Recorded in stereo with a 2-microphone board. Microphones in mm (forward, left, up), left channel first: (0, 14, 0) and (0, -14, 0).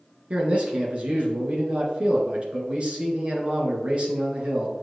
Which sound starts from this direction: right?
A man speaking, at 0.3 s.